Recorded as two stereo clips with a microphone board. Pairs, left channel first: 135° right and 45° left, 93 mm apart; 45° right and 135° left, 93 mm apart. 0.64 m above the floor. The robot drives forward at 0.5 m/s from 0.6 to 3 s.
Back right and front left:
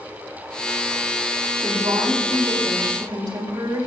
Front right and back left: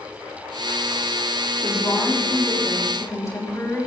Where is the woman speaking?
5° left, 4 m; by 3.9 s 10° left, 3.5 m.